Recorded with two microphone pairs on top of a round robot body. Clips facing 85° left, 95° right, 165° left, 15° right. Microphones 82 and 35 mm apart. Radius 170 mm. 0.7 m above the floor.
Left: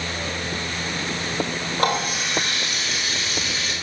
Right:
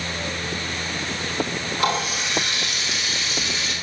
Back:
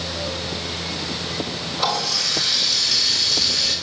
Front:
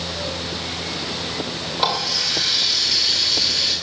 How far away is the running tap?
About 3 m.